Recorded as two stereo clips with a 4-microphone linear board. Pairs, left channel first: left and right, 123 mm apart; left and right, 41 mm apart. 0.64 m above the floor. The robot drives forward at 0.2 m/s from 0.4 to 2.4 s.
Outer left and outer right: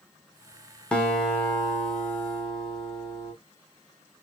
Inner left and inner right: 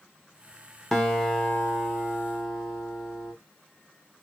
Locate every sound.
0.9 s a guitar: 5° left (ahead or behind), 1.0 m